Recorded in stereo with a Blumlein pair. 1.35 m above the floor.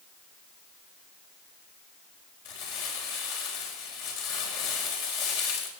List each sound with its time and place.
2.5 s crumpling: 50° left, 4.5 m